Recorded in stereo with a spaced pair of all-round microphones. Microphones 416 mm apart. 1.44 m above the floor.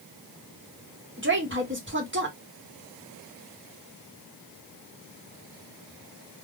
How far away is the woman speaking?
About 1.1 m.